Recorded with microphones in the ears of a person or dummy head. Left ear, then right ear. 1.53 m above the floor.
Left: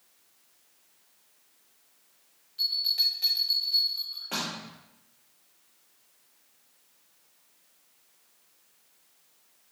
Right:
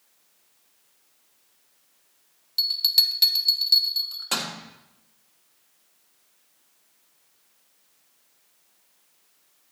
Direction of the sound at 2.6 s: 60° right (ahead or behind).